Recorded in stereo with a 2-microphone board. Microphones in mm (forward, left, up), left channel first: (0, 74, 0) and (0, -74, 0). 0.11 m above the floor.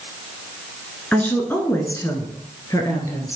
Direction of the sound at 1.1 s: 10° left (ahead or behind).